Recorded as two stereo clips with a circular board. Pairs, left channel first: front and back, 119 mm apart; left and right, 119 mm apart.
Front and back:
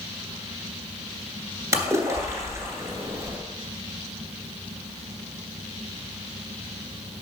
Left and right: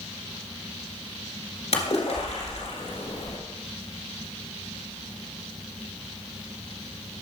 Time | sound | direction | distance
1.7 | a splash | 115° left | 1.9 m